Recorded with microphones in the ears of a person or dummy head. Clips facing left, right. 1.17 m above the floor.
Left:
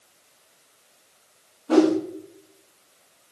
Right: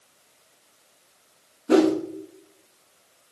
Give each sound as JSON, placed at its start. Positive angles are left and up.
{"t": 1.7, "sound": "a whoosh", "side_deg": -30, "distance_m": 0.6}